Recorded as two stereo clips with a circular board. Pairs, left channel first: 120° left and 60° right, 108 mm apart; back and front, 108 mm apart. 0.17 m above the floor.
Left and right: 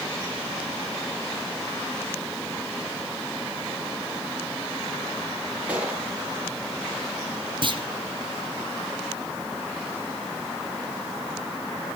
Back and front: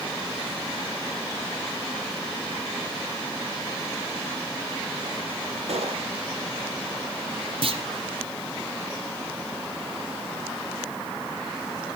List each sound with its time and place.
5.7 s a gunshot: 15° left, 3.5 m
7.6 s a clunk: 25° right, 2.5 m